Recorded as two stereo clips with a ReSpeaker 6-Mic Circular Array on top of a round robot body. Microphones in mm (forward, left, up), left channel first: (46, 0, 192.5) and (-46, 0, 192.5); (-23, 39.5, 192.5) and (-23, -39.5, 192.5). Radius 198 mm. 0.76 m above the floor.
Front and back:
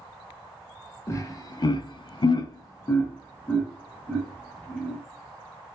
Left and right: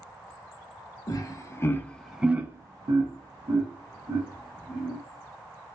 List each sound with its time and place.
1.1 s laughter: 55° left, 0.7 m; by 5.0 s 85° right, 1.5 m